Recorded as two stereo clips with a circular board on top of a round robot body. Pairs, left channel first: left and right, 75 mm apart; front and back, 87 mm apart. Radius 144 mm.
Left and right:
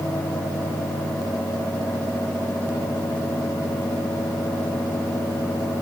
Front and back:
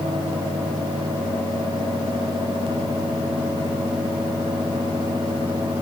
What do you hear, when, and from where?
Only background noise.